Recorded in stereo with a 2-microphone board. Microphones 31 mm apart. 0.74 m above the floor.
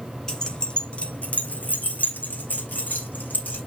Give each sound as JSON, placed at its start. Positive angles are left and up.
{"t": 0.3, "sound": "keys jangling", "side_deg": 20, "distance_m": 2.0}